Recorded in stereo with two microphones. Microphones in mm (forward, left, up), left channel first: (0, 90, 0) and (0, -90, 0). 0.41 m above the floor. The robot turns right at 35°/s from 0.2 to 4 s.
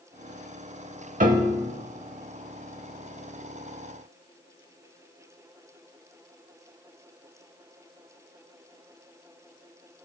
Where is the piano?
45° right (ahead or behind), 0.9 m; by 1.7 s 30° right (ahead or behind), 0.9 m.